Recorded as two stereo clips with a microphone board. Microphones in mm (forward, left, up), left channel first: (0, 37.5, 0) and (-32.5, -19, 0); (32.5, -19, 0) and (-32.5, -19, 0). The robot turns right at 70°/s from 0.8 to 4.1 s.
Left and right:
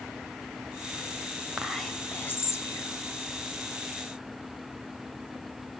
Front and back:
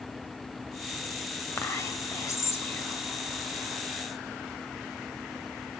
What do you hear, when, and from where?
1.6 s whispering: 35° right, 1.5 m; by 3.0 s 60° left, 1.5 m